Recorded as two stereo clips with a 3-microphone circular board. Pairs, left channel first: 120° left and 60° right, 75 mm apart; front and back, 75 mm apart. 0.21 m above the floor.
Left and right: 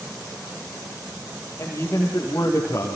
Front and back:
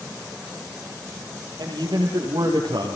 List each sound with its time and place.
1.6 s a man speaking: 175° left, 7.5 m; by 3.0 s 170° left, 7 m